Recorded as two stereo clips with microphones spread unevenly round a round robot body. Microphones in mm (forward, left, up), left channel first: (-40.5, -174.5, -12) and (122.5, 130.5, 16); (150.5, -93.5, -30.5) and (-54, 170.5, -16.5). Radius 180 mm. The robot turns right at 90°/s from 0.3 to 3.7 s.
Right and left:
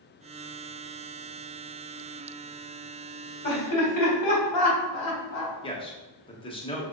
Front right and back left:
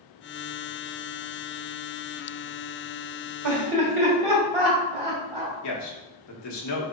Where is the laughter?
Straight behind, 1.8 m; by 5.5 s 155° right, 1.8 m.